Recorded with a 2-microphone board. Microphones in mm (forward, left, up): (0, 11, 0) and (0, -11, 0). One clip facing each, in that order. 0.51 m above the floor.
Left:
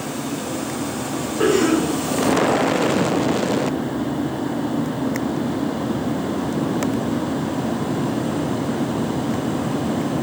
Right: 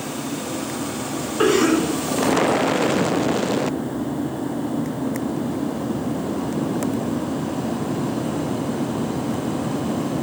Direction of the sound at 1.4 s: 75° right (ahead or behind).